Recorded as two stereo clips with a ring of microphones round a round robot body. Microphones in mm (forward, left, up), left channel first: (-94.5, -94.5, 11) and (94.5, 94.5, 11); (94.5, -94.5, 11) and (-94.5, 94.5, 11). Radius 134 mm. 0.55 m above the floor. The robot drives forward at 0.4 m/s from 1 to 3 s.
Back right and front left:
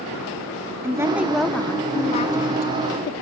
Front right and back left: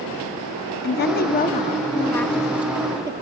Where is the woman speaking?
30° right, 0.7 m; by 3.1 s 155° right, 0.8 m.